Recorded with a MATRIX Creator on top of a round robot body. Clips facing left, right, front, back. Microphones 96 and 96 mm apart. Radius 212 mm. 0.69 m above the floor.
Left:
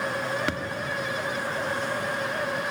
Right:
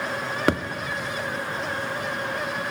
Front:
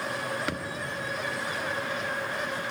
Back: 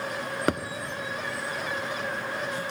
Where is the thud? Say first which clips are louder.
Right 7 dB, back 7 dB; 135° right, 1.0 m.